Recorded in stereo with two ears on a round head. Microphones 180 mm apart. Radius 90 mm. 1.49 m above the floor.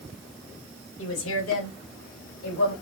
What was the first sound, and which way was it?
A woman speaking, 75° left (ahead or behind).